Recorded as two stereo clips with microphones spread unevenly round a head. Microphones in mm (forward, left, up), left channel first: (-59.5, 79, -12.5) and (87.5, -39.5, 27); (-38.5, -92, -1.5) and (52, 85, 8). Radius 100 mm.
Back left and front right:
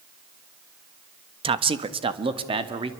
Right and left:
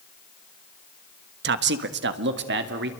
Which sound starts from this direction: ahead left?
A man speaking, at 1.4 s.